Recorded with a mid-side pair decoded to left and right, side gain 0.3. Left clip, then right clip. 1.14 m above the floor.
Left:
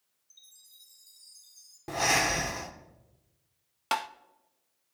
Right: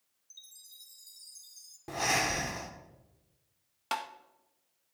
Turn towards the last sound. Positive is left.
turn(degrees=50)